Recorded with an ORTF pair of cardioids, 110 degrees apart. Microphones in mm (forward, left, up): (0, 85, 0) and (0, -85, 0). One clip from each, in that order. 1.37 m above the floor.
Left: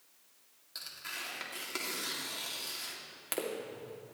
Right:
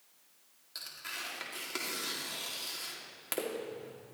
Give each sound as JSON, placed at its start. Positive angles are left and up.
{"t": 0.8, "sound": "tearing paper", "azimuth_deg": 0, "distance_m": 2.0}